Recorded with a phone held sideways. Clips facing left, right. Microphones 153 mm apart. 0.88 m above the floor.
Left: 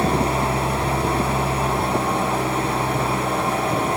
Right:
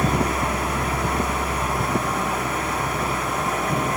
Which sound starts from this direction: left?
An engine running, at 0.0 s.